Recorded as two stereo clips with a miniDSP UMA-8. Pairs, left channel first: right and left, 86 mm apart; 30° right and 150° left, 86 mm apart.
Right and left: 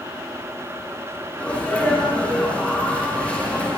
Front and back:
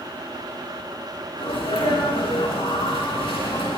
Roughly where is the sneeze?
Ahead.